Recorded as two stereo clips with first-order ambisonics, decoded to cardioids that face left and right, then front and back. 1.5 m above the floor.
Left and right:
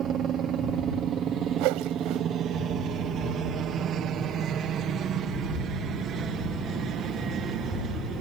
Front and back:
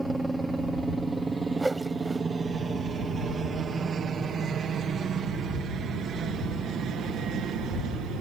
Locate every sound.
0.0 s a helicopter: 100° right; by 8.2 s 135° right
1.6 s a whoosh: 95° right